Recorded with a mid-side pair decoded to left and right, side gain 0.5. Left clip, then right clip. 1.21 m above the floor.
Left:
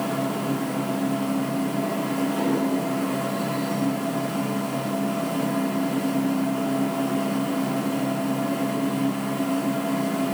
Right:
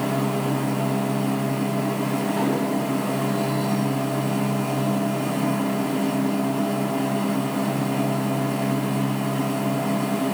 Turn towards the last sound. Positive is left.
turn(degrees=-60)